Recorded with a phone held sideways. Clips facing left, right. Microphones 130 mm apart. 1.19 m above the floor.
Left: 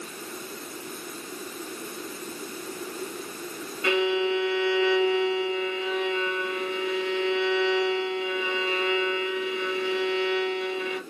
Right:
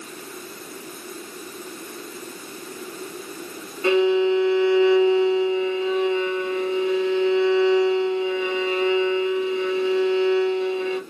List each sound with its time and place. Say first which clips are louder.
3.8 s a violin: right 6 dB; 30° right (ahead or behind), 1.3 m